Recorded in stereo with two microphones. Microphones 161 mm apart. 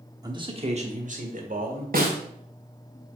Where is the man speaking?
25° right (ahead or behind), 0.9 m; by 1.8 s 65° right (ahead or behind), 1.9 m.